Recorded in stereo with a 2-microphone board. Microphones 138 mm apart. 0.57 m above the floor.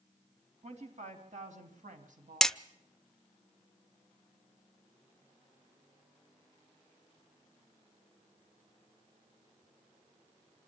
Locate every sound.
0.6 s a woman speaking: 60° right (ahead or behind), 3.5 m; by 2.5 s 70° right (ahead or behind), 3.5 m
2.4 s hammering: 5° left (ahead or behind), 0.5 m